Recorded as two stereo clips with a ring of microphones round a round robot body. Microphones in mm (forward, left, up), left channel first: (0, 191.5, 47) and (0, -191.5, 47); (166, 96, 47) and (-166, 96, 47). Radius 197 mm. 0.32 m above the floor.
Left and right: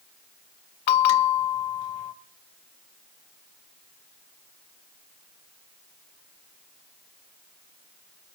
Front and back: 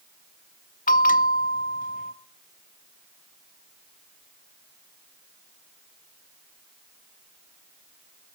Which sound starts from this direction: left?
A bell, at 0.9 s.